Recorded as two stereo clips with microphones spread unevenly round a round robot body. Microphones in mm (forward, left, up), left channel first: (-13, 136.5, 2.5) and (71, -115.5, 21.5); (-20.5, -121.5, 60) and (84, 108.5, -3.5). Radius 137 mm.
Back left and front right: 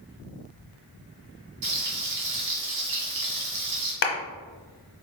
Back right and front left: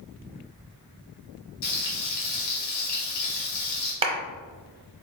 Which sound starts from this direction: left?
A clap, at 4.0 s.